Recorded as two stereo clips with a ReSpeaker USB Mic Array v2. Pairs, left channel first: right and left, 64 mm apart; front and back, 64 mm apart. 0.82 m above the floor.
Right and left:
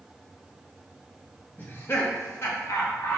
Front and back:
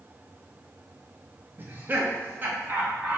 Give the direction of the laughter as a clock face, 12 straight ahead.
5 o'clock.